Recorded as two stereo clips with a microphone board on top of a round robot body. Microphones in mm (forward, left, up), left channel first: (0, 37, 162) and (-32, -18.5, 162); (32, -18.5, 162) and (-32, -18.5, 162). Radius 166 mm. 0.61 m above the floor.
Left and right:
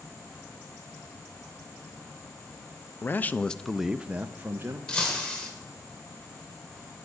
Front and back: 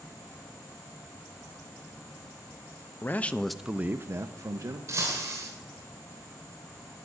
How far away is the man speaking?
About 0.7 m.